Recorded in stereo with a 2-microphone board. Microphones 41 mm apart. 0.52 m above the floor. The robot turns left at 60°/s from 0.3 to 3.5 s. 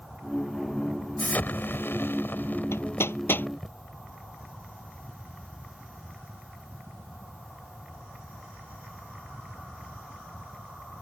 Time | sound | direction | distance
1.2 | an explosion | 140° left | ?
2.7 | hammering | 85° left | ?